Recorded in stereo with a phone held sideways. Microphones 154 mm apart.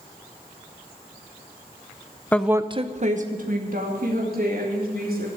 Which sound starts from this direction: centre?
A woman speaking, at 2.3 s.